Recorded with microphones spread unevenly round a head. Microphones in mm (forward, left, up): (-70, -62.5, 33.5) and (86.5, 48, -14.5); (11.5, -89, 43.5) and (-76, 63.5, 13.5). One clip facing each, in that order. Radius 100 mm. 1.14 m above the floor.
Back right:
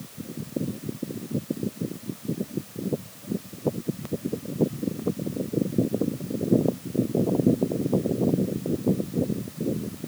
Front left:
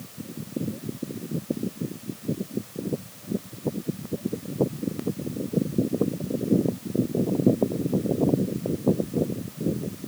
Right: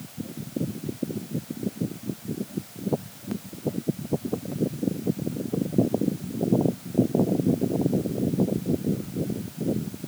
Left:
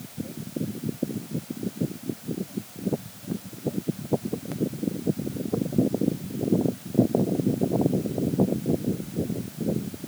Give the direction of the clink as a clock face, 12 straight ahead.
No clink in this recording.